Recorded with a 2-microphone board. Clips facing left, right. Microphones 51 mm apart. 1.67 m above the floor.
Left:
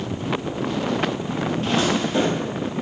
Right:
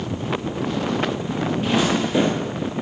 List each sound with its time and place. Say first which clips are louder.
1.6 s footsteps: right 1 dB; 15° right (ahead or behind), 2 m